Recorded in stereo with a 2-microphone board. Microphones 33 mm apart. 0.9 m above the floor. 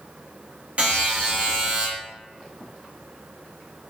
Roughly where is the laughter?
I don't hear laughter.